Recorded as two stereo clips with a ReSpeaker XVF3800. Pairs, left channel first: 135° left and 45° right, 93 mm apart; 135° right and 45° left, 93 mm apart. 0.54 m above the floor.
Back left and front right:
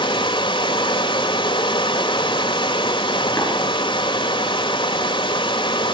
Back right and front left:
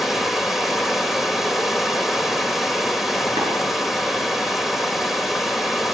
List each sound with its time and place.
0.0 s running water: 135° left, 1.8 m
3.4 s tapping: 75° left, 8 m